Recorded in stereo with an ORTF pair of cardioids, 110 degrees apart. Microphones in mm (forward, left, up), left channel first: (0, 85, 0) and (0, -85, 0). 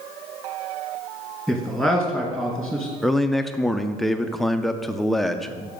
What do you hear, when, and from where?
1.5 s a man speaking: 5° right, 2.0 m
3.0 s a man speaking: straight ahead, 0.6 m